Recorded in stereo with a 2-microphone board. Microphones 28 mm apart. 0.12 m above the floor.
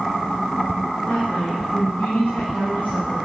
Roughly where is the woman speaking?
Left.